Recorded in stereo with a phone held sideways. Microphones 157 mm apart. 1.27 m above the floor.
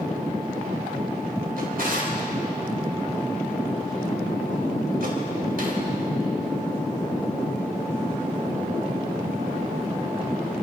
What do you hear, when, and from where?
1.6 s a drawer: 70° right (ahead or behind), 3.5 m